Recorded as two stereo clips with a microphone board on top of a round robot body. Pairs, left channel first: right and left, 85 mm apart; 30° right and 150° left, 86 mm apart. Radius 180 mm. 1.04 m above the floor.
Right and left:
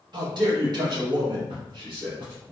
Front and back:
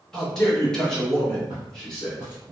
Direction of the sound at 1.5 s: 90° left.